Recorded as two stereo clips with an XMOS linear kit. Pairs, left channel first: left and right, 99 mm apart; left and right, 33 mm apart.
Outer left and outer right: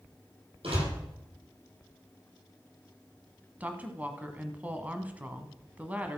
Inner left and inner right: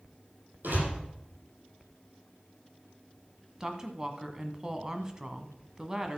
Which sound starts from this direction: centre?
A woman speaking, at 3.6 s.